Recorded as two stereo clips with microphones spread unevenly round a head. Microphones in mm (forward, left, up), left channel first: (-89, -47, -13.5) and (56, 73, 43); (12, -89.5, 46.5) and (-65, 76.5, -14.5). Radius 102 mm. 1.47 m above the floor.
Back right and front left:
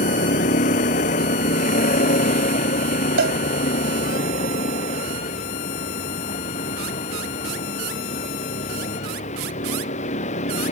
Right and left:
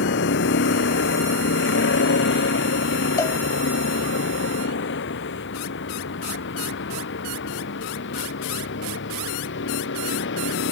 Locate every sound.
0.0 s a vehicle: 85° right
3.2 s a cowbell: 10° left